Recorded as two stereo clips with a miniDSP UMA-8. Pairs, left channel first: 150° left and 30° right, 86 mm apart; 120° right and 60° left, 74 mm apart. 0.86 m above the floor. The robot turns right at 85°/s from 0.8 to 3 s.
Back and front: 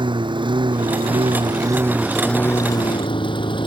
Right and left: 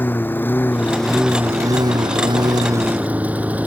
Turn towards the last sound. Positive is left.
turn(degrees=130)